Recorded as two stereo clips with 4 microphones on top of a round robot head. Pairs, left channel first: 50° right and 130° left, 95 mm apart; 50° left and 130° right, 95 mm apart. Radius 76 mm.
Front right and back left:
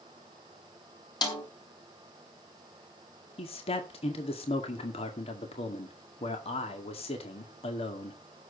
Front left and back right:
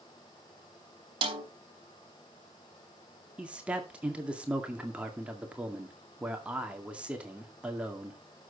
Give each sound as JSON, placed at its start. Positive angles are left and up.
{"t": 1.2, "sound": "a snare drum", "azimuth_deg": -95, "distance_m": 3.0}
{"t": 3.4, "sound": "a man speaking", "azimuth_deg": -55, "distance_m": 2.0}